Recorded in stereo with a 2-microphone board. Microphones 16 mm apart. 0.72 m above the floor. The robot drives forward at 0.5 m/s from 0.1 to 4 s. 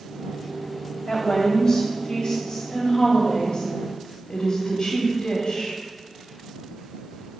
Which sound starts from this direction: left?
A woman speaking, at 1.1 s.